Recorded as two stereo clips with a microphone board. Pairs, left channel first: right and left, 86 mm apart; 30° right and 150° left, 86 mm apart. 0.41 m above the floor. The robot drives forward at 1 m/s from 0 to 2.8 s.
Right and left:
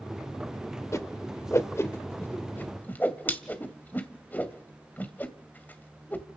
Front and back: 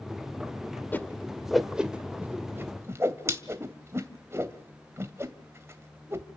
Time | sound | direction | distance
0.9 | a whoosh | 75° right | 1.3 m